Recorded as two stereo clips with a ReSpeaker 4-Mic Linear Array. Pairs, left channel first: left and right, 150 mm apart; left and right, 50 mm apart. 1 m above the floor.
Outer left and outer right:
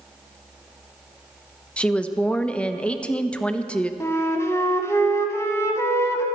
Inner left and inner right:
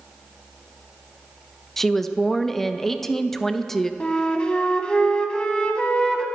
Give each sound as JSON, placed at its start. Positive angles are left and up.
{"t": 1.8, "sound": "a woman speaking", "side_deg": 5, "distance_m": 0.7}
{"t": 4.0, "sound": "a flute", "side_deg": 20, "distance_m": 1.0}